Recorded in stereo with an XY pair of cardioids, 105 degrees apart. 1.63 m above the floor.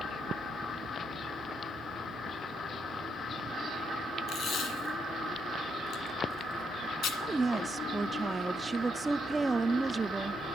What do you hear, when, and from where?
4.3 s tape being pulled: 65° left, 1.9 m
7.2 s a woman speaking: 20° right, 0.7 m